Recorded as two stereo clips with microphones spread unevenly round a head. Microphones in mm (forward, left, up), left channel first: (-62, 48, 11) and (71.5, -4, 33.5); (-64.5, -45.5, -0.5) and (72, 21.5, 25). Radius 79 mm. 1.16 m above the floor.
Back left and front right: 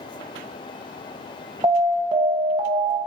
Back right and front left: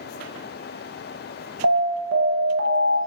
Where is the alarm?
45° left, 0.6 m.